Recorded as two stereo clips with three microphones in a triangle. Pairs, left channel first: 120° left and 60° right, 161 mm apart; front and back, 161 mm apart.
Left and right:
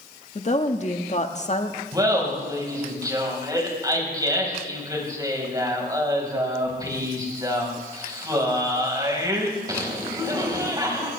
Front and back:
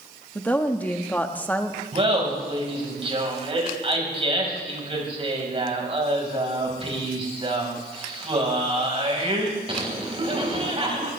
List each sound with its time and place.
0.3 s a woman speaking: 80° left, 1.4 m
1.9 s laughter: 125° right, 4.5 m